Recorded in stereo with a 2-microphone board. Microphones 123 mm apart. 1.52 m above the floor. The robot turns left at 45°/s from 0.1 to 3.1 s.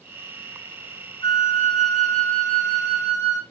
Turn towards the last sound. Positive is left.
turn(degrees=40)